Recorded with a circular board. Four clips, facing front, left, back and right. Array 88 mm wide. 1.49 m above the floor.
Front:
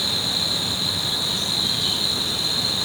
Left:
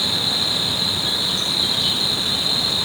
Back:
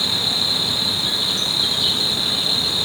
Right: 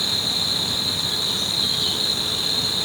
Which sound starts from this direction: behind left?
An insect, at 0.0 s.